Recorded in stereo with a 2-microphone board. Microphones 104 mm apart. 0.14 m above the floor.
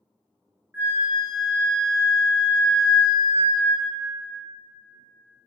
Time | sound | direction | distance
0.7 | a flute | 25° right (ahead or behind) | 0.7 m